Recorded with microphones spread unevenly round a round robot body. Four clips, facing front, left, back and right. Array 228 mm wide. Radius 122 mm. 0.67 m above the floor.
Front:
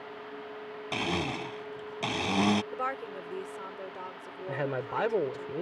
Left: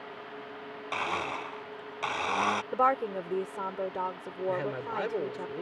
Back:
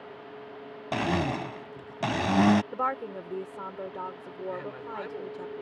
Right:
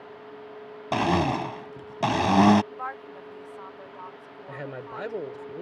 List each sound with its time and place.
0.9 s a blender: 110° right
2.7 s a woman speaking: 110° left
4.5 s a man speaking: straight ahead